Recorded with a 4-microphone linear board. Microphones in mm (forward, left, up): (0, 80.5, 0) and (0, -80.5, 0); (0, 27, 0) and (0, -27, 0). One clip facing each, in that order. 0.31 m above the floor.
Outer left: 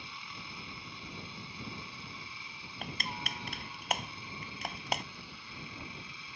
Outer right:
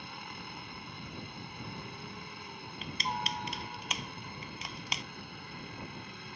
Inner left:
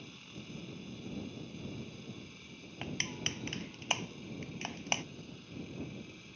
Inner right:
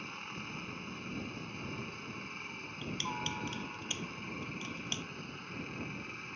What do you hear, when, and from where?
0.0 s a helicopter: 55° right (ahead or behind)
2.8 s crushing: 55° left (ahead or behind)